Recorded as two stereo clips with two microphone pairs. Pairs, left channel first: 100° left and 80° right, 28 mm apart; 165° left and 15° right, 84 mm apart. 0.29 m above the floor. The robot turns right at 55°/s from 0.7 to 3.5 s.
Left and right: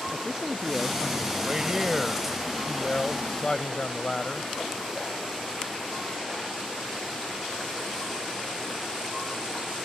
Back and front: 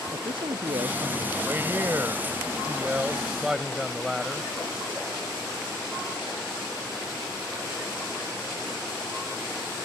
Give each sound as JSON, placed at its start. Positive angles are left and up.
{"t": 0.1, "sound": "a man speaking", "azimuth_deg": -15}
{"t": 1.5, "sound": "a man speaking", "azimuth_deg": -50}